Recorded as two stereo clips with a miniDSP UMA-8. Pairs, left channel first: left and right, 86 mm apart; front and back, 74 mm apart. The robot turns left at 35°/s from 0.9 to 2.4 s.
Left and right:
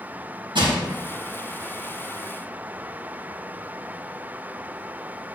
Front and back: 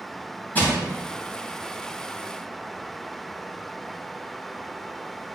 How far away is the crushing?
About 3.5 m.